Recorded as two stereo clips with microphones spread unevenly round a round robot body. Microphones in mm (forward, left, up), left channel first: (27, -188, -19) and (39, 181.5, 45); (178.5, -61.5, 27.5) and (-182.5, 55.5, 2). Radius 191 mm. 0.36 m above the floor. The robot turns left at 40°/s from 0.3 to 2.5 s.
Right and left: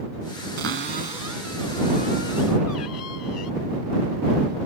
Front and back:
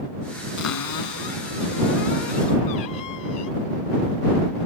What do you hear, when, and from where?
0.6 s a cupboard door: 35° left; by 3.5 s 45° right